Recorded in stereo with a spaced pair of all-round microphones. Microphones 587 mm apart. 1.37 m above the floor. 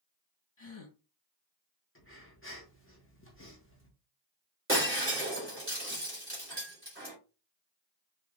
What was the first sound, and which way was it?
A gasp, 55° left (ahead or behind).